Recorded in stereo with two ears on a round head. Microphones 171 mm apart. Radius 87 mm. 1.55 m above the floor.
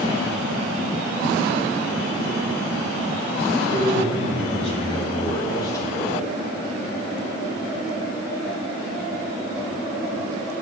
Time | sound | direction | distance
3.6 | a man speaking | 45° left (ahead or behind) | 4.5 m